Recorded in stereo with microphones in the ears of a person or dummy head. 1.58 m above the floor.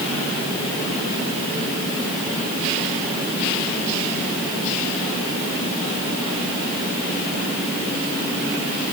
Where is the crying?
I don't hear crying.